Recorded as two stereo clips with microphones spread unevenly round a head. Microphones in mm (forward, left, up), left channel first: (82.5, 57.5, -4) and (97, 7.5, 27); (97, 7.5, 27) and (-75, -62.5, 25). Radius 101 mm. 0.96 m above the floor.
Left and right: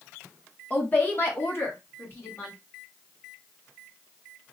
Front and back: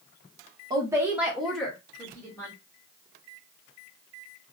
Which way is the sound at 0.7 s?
135° left.